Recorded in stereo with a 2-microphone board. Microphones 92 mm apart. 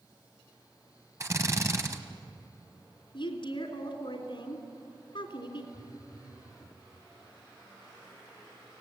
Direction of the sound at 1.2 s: 35° right (ahead or behind).